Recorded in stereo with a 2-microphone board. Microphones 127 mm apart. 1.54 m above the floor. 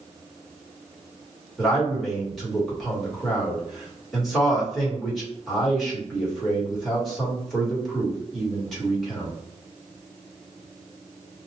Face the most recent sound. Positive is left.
turn(degrees=0)  # may be behind; listen again after turning